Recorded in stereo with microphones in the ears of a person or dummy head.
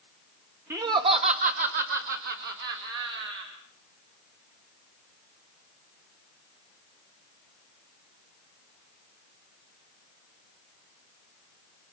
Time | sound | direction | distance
0.7 | laughter | 10° right (ahead or behind) | 1.2 m